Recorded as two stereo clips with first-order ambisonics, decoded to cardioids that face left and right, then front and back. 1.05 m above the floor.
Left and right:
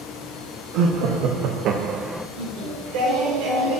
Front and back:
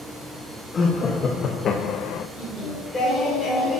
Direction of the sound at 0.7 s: 70° right.